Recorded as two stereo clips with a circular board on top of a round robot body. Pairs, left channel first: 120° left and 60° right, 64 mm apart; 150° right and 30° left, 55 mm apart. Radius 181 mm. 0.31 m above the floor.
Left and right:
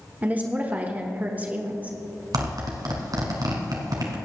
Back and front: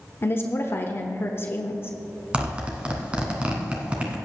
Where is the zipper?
40° right, 1.7 m.